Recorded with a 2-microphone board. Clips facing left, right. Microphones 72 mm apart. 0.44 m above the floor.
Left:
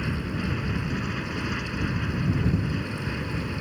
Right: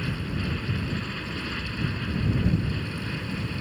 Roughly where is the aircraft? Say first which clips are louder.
Left 2 dB; centre.